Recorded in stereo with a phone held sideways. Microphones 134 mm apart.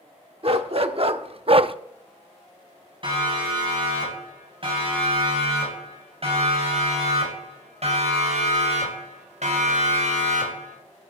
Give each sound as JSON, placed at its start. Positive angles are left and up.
{"t": 0.4, "sound": "a dog barking", "side_deg": -50, "distance_m": 1.1}
{"t": 3.0, "sound": "a siren", "side_deg": -40, "distance_m": 9.0}